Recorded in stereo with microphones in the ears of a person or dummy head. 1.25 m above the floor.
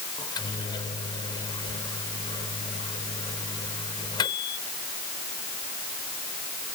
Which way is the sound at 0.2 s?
25° left (ahead or behind).